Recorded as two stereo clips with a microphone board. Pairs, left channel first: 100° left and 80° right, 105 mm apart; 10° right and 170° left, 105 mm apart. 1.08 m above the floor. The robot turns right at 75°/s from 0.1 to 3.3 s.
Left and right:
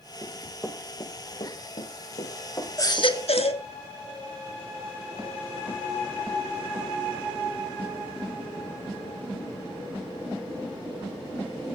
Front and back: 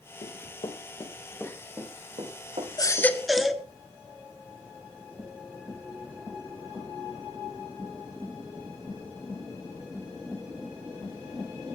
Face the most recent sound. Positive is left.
turn(degrees=80)